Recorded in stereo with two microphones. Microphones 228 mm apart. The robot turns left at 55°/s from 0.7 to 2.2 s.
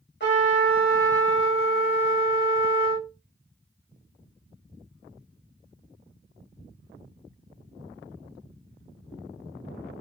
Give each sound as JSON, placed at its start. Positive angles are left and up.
{"t": 0.2, "sound": "a trumpet", "azimuth_deg": 60, "distance_m": 2.5}